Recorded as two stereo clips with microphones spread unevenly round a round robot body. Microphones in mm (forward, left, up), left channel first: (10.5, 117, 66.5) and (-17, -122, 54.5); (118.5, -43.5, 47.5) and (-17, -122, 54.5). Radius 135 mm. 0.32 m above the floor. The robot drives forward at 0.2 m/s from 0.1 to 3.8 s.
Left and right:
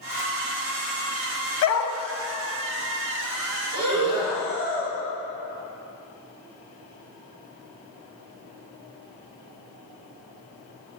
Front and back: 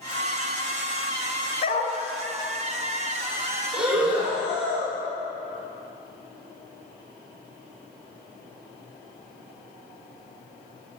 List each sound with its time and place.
1.6 s a dog barking: 75° left, 1.0 m; by 1.9 s 80° left, 0.9 m
3.7 s breathing: 165° left, 3 m